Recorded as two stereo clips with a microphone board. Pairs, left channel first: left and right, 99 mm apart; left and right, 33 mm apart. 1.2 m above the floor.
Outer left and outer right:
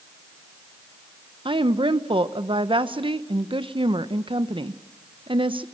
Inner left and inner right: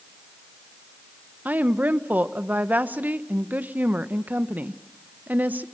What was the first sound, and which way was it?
A woman speaking, 60° right (ahead or behind).